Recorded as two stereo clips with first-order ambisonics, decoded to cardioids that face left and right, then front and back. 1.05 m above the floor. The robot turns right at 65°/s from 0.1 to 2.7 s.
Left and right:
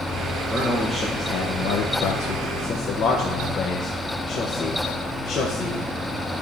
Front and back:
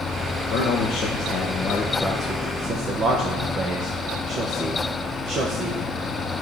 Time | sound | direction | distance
0.5 | a man speaking | 5° right | 1.2 m